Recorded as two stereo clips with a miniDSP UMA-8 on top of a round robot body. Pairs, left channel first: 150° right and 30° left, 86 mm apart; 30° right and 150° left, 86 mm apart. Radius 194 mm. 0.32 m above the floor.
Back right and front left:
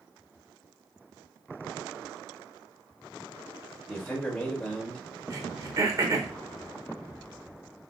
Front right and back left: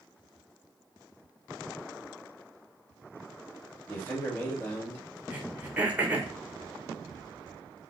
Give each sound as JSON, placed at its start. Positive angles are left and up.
{"t": 3.9, "sound": "a man speaking", "azimuth_deg": -75, "distance_m": 1.7}
{"t": 5.3, "sound": "throat clearing", "azimuth_deg": 80, "distance_m": 1.0}